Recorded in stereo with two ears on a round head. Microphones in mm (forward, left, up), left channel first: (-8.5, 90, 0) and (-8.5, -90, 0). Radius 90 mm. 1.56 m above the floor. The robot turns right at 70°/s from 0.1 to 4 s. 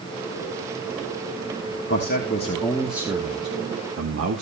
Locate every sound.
1.9 s a man speaking: 115° left, 2.5 m; by 4.4 s 100° right, 2.5 m